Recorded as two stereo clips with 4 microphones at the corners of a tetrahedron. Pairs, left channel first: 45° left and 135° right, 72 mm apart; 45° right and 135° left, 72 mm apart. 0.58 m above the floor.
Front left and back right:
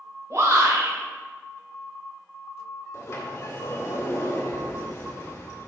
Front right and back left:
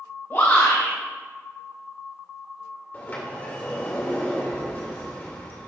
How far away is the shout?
About 3 m.